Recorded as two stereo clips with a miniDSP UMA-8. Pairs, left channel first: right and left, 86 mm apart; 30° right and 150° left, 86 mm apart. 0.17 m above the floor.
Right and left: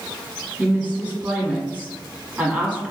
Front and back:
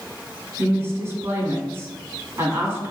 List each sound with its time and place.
0.6 s a woman speaking: 145° left, 1.3 m